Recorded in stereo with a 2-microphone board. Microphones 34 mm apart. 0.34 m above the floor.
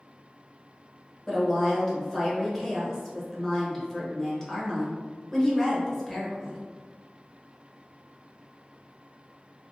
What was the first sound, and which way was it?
A woman speaking, 15° left (ahead or behind).